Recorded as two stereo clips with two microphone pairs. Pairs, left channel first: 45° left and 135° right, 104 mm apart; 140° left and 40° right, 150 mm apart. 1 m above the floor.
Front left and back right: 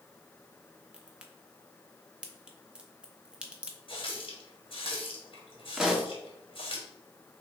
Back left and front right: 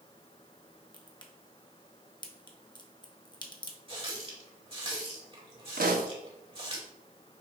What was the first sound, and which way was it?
A crack, 150° left.